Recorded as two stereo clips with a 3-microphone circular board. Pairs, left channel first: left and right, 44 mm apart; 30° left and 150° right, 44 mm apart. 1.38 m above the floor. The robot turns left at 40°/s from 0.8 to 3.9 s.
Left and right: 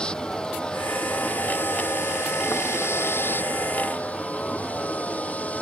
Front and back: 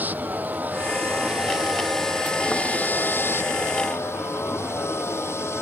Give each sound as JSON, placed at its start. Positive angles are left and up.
{"t": 0.0, "sound": "a vehicle", "azimuth_deg": 160}